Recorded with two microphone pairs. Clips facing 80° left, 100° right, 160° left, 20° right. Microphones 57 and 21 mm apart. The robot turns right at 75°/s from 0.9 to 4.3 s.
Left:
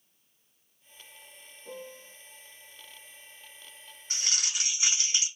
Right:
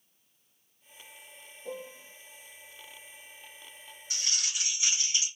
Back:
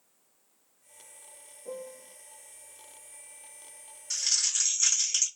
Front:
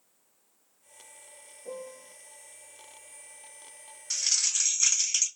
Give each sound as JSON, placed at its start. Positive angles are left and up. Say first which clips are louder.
{"t": 1.6, "sound": "a piano", "louder": "right 3 dB, even", "azimuth_deg": -90, "distance_m": 1.2}
{"t": 4.1, "sound": "crumpling", "louder": "left 2 dB, front 1 dB", "azimuth_deg": 50, "distance_m": 1.6}